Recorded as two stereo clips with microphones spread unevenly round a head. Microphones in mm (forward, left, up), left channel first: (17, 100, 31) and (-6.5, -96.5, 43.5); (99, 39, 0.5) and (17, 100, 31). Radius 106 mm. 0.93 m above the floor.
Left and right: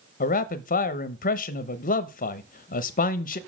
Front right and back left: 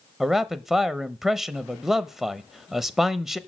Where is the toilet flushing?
No toilet flushing in this recording.